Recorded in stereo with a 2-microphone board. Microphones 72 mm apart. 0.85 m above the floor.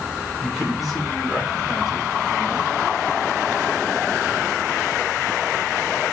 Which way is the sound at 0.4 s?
Centre (ahead or behind).